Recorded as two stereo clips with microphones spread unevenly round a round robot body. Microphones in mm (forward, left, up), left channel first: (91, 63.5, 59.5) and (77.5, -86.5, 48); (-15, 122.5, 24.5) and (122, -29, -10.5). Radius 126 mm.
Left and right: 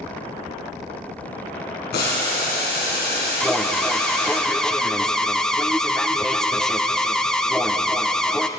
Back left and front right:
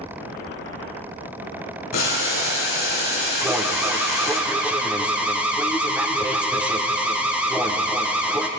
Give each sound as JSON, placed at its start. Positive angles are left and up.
{"t": 1.9, "sound": "boiling", "azimuth_deg": 115, "distance_m": 2.5}
{"t": 3.4, "sound": "an alarm", "azimuth_deg": -5, "distance_m": 0.6}